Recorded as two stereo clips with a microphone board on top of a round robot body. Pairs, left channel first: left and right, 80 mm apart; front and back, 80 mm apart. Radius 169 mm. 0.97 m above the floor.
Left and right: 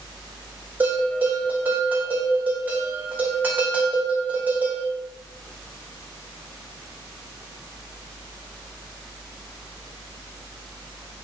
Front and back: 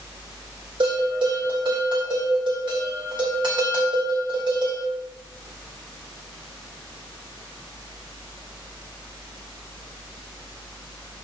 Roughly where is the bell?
Behind.